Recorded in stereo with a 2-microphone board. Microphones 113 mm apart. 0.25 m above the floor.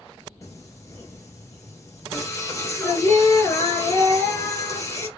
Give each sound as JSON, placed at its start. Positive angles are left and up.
{"t": 0.4, "sound": "singing", "side_deg": 25, "distance_m": 2.0}